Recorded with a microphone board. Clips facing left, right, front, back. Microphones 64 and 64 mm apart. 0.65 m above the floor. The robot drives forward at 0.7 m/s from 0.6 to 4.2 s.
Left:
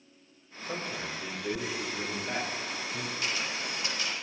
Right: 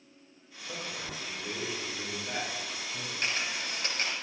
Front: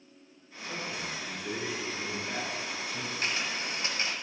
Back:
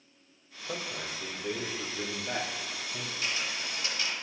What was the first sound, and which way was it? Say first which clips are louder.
A man speaking: left 4 dB, even; 155° left.